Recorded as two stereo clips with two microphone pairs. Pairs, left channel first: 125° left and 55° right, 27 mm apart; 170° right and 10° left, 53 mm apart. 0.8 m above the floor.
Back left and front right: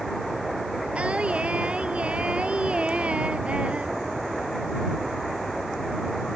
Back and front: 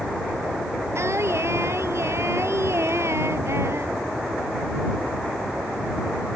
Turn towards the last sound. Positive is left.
turn(degrees=-15)